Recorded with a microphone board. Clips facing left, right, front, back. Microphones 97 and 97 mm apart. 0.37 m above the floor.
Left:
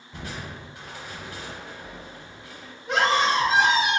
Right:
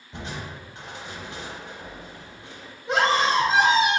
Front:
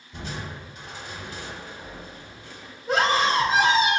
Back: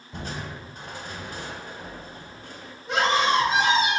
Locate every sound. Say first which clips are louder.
0.1 s crushing: right 1 dB, back 1 dB; 150° right, 0.9 m
2.9 s a scream: right 1 dB, even; 15° right, 1.1 m